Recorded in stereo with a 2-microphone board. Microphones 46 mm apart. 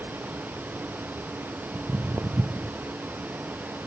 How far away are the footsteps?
About 0.6 m.